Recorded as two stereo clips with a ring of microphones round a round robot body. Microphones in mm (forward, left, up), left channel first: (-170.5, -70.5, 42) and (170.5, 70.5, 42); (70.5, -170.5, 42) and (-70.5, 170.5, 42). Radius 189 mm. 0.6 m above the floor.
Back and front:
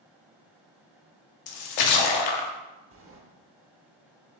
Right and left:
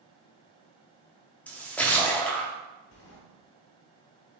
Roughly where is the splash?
Behind right.